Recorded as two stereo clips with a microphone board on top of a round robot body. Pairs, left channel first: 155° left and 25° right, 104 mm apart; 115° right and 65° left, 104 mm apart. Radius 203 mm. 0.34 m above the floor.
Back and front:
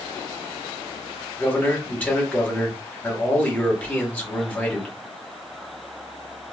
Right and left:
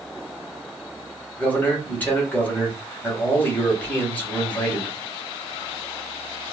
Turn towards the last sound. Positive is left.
turn(degrees=-155)